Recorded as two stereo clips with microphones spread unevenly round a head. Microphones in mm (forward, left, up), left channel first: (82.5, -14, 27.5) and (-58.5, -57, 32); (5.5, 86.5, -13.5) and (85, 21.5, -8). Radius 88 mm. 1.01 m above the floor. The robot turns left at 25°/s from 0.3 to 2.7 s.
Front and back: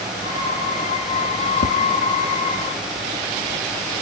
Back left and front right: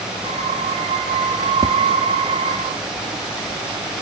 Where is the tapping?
20° left, 0.6 m; by 1.8 s 15° left, 0.6 m.